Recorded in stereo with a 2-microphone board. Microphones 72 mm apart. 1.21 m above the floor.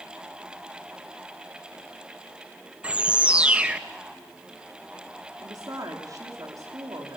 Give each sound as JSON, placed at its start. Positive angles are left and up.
{"t": 2.8, "sound": "a bird", "side_deg": -15, "distance_m": 1.0}
{"t": 5.4, "sound": "a woman speaking", "side_deg": -60, "distance_m": 3.0}